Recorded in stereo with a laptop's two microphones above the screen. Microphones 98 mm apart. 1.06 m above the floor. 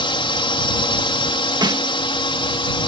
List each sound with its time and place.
0.0 s a drone: 60° left (ahead or behind)
1.6 s a snare drum: 50° right (ahead or behind)